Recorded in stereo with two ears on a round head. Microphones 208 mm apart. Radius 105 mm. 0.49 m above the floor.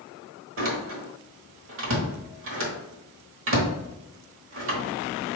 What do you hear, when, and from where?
0.6 s a door slam: 55° right (ahead or behind), 1.1 m